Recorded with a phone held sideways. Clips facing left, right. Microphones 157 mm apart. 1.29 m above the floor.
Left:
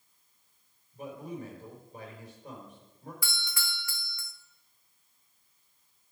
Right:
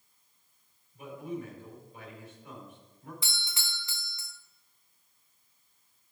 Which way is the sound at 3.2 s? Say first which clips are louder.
Left 3 dB; 20° right (ahead or behind).